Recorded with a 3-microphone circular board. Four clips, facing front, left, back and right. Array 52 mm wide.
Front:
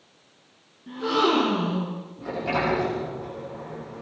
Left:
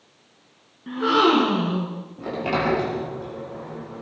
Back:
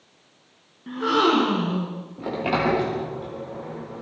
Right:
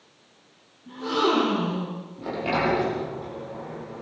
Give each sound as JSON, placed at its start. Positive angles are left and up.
{"t": 0.9, "sound": "a gasp", "azimuth_deg": 125, "distance_m": 5.0}
{"t": 2.2, "sound": "a sliding door", "azimuth_deg": 170, "distance_m": 9.0}